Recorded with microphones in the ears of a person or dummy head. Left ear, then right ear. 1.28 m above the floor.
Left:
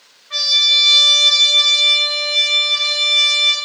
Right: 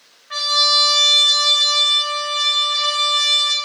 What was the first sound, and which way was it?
A trumpet, 30° right (ahead or behind).